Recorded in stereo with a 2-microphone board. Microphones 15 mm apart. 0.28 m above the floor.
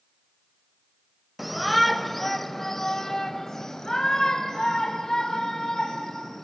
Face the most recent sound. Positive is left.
turn(degrees=45)  # may be behind; listen again after turning